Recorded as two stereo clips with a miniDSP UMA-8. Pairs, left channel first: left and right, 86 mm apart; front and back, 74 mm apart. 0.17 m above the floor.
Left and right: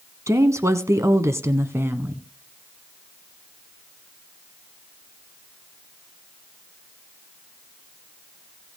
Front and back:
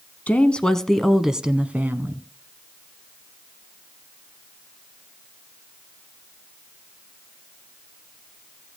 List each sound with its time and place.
0.3 s a woman speaking: 60° right, 1.3 m; by 2.2 s 140° right, 1.3 m